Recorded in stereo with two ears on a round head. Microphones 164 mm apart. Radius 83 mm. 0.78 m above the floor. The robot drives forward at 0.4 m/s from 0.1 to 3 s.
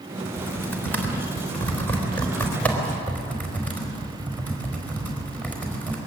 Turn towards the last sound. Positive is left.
turn(degrees=10)  # may be behind; listen again after turning